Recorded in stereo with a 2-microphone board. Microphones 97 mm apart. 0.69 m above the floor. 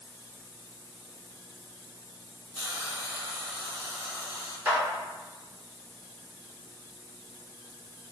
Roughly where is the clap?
Right.